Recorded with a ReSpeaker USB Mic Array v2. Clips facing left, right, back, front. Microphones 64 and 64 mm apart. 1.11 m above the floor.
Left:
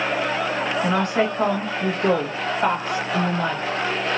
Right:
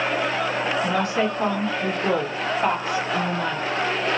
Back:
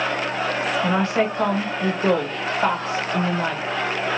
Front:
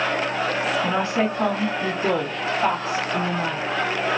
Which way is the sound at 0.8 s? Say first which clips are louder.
Left 4 dB, back 1 dB; 135° left.